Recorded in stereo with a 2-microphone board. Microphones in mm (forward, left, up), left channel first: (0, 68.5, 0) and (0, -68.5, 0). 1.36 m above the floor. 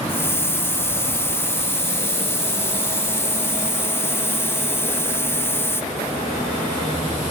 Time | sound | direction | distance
0.1 | a hiss | 15° left (ahead or behind) | 0.5 m